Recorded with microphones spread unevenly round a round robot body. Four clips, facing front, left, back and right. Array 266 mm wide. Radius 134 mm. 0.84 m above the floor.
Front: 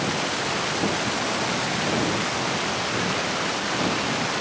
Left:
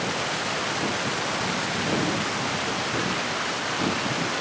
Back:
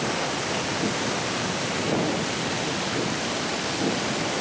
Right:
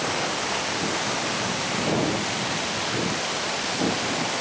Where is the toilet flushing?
No toilet flushing in this recording.